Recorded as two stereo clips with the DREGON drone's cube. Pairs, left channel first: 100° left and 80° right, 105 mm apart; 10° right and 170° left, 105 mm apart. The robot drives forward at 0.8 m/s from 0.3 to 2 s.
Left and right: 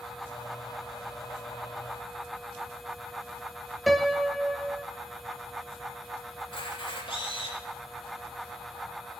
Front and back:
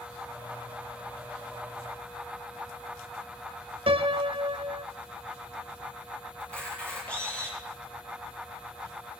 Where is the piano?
170° right, 0.9 m.